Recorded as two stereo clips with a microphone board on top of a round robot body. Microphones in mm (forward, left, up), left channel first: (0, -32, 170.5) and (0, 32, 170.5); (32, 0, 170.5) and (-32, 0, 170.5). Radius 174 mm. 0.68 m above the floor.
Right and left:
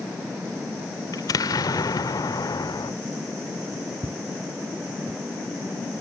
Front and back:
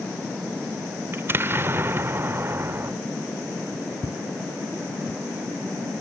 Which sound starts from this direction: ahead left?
Footsteps, at 4.0 s.